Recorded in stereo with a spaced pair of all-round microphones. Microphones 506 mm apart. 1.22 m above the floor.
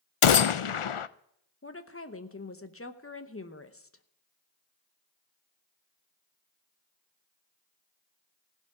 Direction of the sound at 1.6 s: 25° left (ahead or behind).